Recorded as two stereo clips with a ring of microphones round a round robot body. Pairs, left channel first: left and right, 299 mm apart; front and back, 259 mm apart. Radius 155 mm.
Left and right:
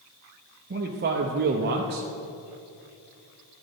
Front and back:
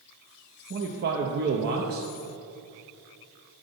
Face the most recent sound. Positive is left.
turn(degrees=-140)